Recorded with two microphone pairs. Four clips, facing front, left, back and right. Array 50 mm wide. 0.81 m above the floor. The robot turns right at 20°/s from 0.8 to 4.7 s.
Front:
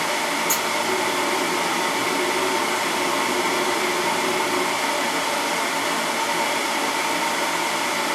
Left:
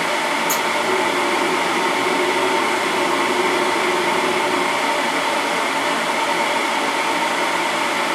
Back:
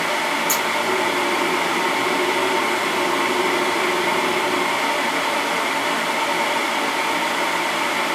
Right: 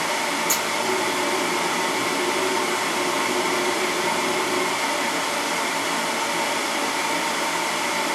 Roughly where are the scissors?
Behind right.